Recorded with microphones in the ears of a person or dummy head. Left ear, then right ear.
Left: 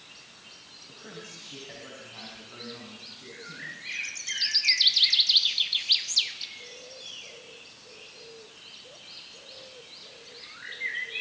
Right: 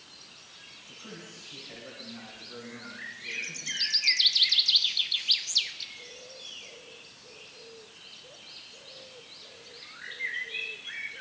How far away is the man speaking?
About 7 m.